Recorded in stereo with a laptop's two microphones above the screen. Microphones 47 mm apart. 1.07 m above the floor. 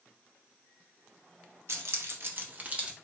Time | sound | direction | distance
1.7 | keys jangling | 65° right (ahead or behind) | 0.6 m